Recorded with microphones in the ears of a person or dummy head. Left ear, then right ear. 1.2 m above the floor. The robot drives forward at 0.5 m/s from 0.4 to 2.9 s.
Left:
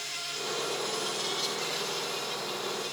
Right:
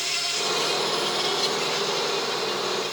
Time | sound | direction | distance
0.0 | an insect | 25° right (ahead or behind) | 0.8 m